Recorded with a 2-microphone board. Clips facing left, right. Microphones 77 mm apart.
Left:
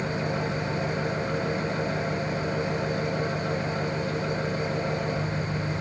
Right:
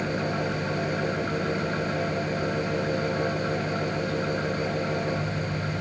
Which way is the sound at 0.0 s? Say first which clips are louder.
Right 1 dB; 40° right (ahead or behind).